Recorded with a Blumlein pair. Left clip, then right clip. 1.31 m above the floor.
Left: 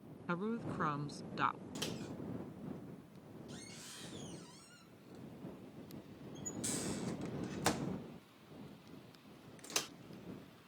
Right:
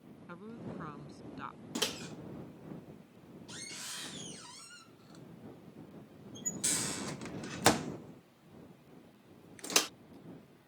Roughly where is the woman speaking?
Ahead left.